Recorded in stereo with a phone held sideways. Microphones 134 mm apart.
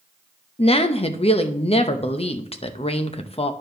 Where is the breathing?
No breathing in this recording.